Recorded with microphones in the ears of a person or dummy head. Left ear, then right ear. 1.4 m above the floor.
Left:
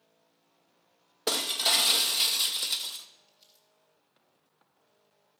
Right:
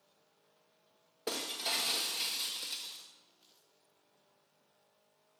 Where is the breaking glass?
25° left (ahead or behind), 1.0 m.